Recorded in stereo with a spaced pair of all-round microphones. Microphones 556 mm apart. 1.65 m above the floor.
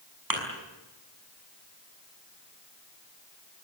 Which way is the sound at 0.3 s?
40° right (ahead or behind).